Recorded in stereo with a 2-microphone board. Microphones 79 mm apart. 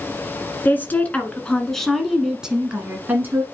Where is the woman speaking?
25° left (ahead or behind), 1.5 m; by 3.4 s 30° right (ahead or behind), 1.4 m.